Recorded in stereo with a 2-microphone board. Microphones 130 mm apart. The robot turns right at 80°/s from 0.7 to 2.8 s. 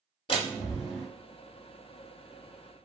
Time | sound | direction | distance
0.3 | a door slam | 45° left (ahead or behind) | 1.3 m